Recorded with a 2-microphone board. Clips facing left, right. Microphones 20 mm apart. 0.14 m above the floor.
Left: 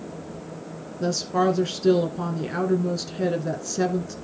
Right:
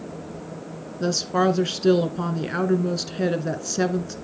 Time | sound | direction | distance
1.0 | a woman speaking | 20° right (ahead or behind) | 1.6 m